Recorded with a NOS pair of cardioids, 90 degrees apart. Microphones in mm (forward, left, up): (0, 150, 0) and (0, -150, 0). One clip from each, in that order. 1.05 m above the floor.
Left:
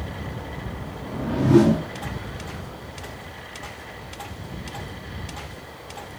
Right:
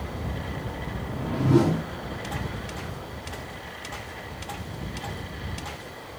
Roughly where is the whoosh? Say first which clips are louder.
Left 5 dB; ahead.